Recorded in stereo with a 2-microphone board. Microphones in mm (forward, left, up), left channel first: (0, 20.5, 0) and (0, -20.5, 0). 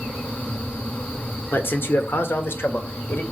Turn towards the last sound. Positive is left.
turn(degrees=70)  # may be behind; listen again after turning